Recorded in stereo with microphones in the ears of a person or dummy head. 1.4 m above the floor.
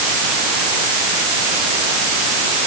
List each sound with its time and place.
Only background noise.